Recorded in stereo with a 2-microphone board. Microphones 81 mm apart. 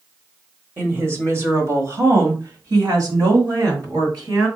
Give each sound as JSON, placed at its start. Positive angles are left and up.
{"t": 0.8, "sound": "a woman speaking", "side_deg": -30, "distance_m": 1.4}